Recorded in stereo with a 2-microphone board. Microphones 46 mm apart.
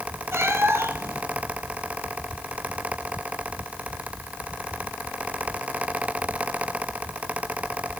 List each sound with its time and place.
0.3 s a cat meowing: 70° right (ahead or behind), 1.8 m